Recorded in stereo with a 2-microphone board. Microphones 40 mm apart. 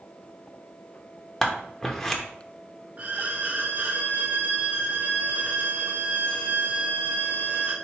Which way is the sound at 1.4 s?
10° left (ahead or behind).